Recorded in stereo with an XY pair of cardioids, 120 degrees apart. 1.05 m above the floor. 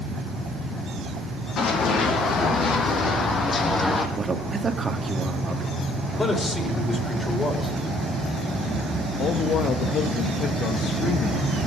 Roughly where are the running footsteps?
Ahead left.